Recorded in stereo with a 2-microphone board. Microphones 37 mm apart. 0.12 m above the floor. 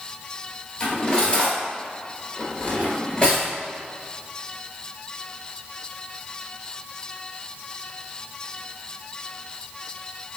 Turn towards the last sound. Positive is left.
turn(degrees=25)  # may be behind; listen again after turning